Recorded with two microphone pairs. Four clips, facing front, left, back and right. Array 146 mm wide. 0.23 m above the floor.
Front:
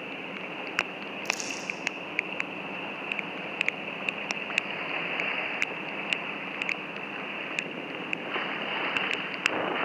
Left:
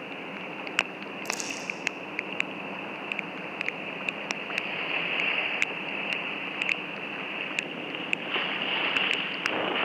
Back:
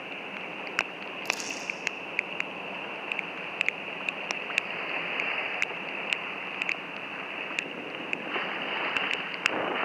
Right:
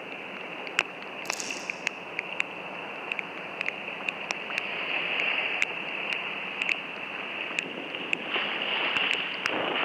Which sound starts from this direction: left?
Crumpling, at 1.2 s.